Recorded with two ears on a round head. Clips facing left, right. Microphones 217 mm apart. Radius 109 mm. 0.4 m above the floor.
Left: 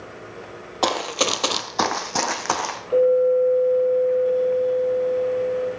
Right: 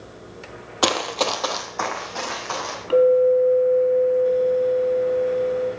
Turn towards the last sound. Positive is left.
turn(degrees=-80)